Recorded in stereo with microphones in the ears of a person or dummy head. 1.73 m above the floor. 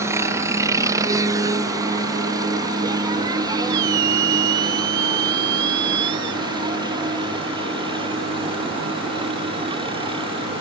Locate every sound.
0.0 s a helicopter: 15° right (ahead or behind); by 10.6 s 25° right (ahead or behind)
3.7 s a squeak: 65° right (ahead or behind)